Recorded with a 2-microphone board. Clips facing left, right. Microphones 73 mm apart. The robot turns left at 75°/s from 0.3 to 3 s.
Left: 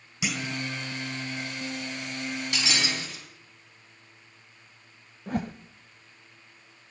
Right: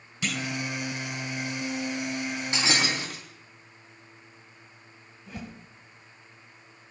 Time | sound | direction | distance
0.2 | a clunk | 10° left (ahead or behind) | 1.9 m
2.5 | breaking glass | 30° right | 4.5 m
5.3 | a whoosh | 55° left (ahead or behind) | 0.8 m